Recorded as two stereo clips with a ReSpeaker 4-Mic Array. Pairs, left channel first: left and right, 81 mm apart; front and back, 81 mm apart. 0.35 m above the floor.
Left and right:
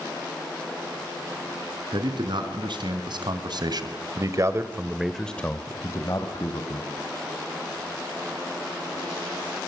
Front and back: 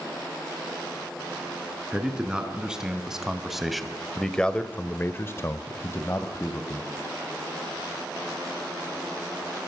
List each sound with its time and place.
1.9 s a man speaking: 100° right, 4.5 m; by 6.9 s 60° left, 3 m